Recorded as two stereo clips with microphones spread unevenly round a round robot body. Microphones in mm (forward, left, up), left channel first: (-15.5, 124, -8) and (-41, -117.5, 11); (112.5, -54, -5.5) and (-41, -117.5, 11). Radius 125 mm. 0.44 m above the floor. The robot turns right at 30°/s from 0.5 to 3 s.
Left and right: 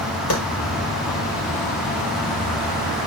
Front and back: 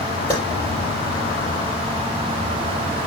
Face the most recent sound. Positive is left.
turn(degrees=180)